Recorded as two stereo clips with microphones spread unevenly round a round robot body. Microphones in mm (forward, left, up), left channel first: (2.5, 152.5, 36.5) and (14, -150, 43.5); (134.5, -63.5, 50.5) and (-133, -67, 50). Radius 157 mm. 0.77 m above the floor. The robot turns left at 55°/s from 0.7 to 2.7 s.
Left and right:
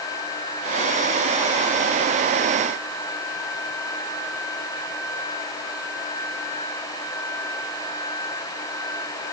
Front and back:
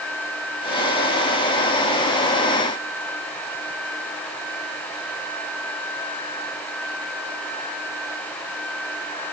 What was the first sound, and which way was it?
Only background noise.